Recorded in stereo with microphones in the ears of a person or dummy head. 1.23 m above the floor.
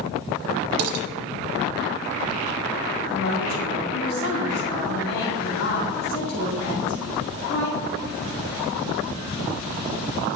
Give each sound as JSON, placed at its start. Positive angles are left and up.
{"t": 0.8, "sound": "dishes clattering", "side_deg": -55, "distance_m": 1.0}
{"t": 3.1, "sound": "a woman speaking", "side_deg": 80, "distance_m": 2.5}